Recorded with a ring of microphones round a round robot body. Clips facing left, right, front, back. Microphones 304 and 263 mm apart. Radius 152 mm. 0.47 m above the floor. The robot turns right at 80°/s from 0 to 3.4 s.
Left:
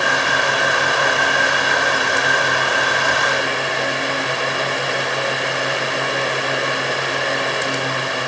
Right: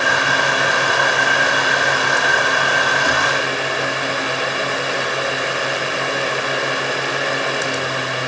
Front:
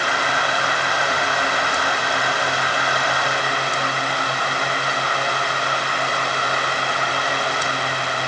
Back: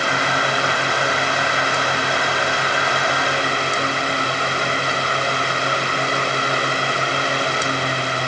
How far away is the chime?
No chime in this recording.